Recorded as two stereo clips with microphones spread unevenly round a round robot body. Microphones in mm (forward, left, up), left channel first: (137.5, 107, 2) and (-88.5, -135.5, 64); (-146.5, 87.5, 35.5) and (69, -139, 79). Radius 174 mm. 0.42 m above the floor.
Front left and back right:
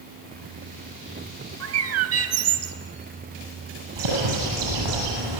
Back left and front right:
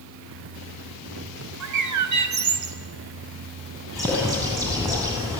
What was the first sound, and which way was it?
A bird, 85° right.